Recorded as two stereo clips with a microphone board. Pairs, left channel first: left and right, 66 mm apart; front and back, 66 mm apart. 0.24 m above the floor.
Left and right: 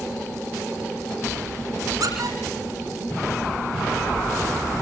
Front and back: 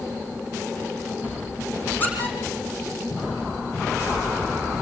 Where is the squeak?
60° right, 5.5 m.